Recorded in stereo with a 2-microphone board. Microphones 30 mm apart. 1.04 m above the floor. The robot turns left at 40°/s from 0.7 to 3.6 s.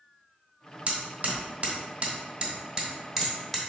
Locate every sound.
0.9 s hammering: 50° right (ahead or behind), 1.1 m; by 3.6 s 5° left (ahead or behind), 1.1 m